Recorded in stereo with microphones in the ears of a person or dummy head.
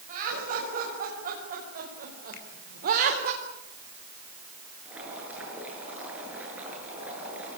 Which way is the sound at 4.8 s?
10° right (ahead or behind).